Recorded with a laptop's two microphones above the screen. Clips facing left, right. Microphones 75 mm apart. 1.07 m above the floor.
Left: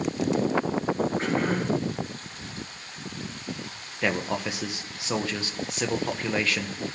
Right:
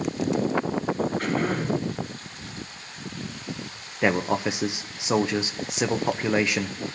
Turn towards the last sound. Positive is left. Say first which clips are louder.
# right 4 dB
turn(degrees=-20)  # may be behind; listen again after turning